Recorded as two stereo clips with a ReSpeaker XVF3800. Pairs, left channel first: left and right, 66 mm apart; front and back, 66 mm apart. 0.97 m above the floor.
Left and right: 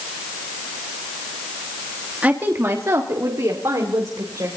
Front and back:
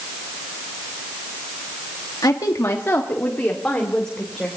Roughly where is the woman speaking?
Ahead right.